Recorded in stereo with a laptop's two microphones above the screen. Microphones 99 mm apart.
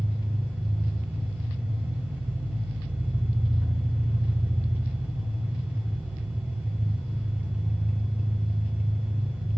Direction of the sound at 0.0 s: 20° right (ahead or behind).